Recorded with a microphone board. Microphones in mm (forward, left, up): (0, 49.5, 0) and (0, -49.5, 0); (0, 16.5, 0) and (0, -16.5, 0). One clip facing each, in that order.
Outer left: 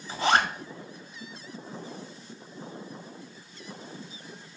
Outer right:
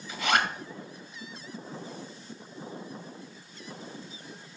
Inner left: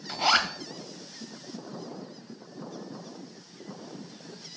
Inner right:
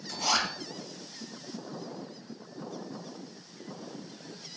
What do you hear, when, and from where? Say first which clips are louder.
0.1 s a zipper: outer left 3 dB, inner left 5 dB; 35° left (ahead or behind), 1.1 m